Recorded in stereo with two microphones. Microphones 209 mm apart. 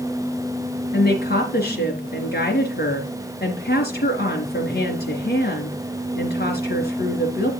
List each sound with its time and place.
0.9 s a woman speaking: 50° left (ahead or behind), 3.5 m